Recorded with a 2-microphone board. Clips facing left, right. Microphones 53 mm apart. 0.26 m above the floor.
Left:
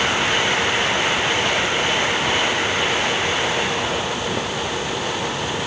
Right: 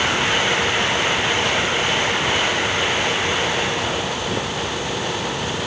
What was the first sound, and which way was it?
Only background noise.